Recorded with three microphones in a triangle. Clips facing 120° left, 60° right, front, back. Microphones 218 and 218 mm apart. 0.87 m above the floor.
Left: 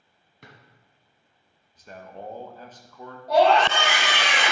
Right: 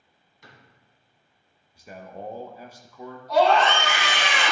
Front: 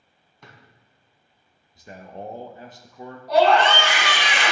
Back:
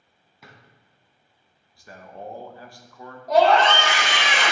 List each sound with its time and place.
0.4 s a drawer: 95° left, 2 m
1.8 s a man speaking: straight ahead, 0.7 m
3.3 s a scream: 135° left, 4 m